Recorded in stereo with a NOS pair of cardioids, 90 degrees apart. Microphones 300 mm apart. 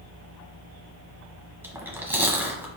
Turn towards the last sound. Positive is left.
turn(degrees=-5)